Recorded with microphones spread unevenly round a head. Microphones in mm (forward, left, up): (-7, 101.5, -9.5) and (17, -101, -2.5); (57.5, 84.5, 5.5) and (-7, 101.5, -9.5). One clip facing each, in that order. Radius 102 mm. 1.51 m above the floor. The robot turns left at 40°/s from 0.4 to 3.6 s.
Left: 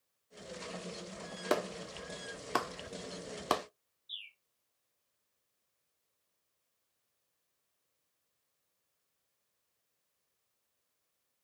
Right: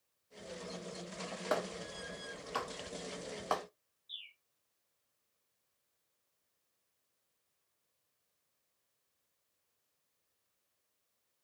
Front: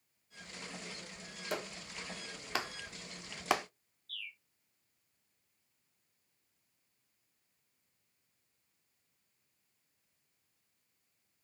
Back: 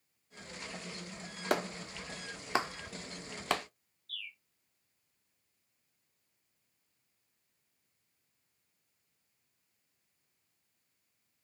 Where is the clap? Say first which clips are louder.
Left 4 dB, back 7 dB; 140° left, 0.7 m; by 3.6 s 55° left, 0.7 m.